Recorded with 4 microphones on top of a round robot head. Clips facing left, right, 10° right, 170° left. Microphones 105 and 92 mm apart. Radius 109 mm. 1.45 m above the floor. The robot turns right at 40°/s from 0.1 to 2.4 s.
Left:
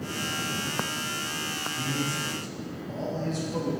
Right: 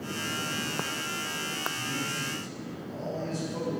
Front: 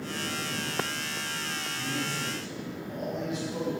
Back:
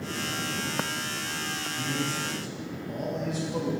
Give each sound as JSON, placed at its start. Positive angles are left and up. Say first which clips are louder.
{"t": 1.7, "sound": "a man speaking", "louder": "left 4 dB, back 3 dB", "azimuth_deg": 90, "distance_m": 1.5}